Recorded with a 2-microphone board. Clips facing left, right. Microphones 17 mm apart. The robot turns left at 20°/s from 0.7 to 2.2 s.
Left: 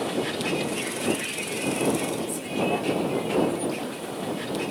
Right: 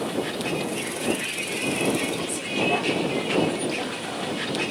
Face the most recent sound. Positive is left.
turn(degrees=-30)